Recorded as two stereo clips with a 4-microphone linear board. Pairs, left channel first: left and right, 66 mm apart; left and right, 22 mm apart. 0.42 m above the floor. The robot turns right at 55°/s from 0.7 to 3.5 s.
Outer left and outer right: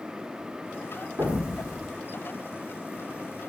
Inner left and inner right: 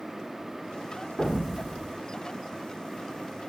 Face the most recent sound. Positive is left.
turn(degrees=90)